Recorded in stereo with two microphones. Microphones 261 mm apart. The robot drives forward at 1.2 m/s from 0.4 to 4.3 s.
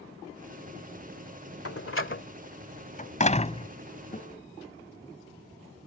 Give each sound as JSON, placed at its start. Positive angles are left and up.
{"t": 1.6, "sound": "a door slam", "side_deg": 65}
{"t": 4.1, "sound": "a guitar", "side_deg": 30}